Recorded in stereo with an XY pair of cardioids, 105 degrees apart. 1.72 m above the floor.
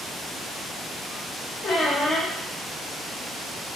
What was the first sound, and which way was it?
A squeak, 50° left.